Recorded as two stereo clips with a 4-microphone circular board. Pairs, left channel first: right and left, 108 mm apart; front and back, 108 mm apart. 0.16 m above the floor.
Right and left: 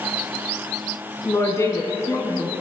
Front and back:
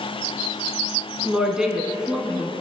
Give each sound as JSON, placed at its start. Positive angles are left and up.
{"t": 1.2, "sound": "a woman speaking", "azimuth_deg": -105, "distance_m": 1.1}